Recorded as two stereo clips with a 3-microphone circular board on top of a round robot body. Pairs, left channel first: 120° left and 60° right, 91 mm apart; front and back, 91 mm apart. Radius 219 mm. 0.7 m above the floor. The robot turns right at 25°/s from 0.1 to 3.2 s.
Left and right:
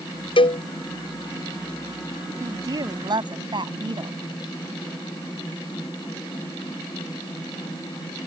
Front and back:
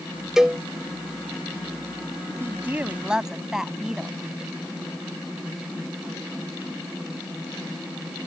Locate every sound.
0.4 s a cowbell: 95° left; by 0.6 s 100° left
2.4 s a woman speaking: 115° right; by 4.2 s 95° right